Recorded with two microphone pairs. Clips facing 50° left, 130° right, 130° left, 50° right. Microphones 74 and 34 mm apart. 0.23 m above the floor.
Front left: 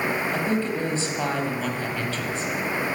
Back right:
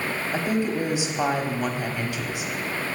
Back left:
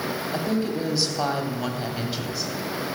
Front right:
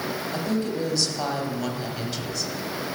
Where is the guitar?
I don't hear a guitar.